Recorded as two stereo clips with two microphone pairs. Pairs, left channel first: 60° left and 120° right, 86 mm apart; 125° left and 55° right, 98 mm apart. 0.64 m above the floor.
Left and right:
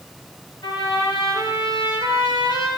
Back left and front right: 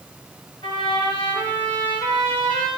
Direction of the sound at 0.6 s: 95° left.